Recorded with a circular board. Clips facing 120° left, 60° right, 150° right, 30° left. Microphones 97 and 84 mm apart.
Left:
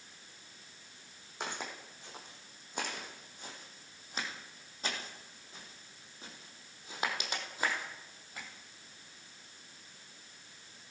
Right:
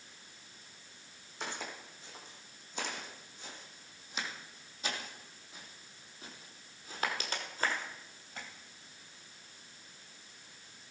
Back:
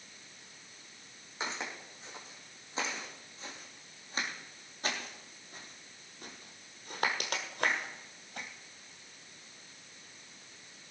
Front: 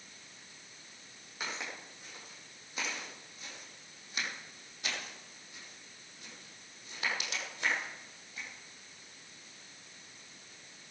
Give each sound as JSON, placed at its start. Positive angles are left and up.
{"t": 1.4, "sound": "footsteps", "azimuth_deg": 145, "distance_m": 4.5}